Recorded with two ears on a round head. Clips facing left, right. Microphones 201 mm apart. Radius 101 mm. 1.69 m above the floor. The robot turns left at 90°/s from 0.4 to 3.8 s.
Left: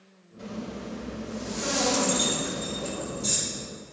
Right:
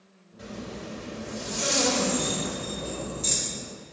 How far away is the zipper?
About 3 m.